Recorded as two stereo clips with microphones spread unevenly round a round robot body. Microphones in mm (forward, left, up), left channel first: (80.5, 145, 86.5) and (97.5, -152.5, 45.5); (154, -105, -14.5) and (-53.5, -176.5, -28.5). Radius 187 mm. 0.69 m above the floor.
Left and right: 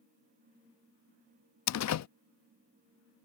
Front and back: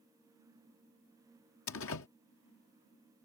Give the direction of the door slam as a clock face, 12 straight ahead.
10 o'clock.